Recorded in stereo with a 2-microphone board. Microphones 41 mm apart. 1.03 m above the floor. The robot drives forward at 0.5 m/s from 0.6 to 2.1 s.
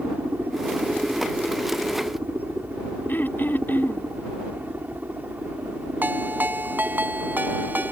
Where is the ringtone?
50° right (ahead or behind).